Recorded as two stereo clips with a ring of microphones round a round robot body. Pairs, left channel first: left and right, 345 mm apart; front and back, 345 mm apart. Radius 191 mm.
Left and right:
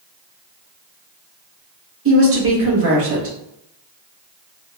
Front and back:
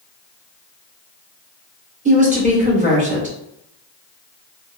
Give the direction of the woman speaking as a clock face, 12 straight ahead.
4 o'clock.